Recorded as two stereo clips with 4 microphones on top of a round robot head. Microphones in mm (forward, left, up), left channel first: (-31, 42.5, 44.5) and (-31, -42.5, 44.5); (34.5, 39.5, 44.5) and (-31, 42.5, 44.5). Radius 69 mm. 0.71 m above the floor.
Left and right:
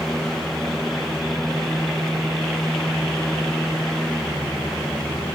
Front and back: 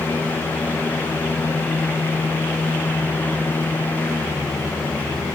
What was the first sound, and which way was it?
Only background noise.